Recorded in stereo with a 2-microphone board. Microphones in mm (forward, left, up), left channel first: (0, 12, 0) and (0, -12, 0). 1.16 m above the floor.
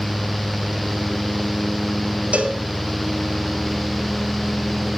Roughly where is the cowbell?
Right.